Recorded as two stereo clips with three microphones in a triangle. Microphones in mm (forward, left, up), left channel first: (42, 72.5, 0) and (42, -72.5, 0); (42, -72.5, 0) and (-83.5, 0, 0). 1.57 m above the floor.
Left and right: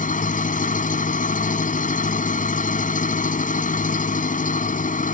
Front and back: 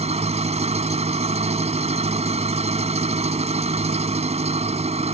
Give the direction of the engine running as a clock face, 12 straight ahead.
8 o'clock.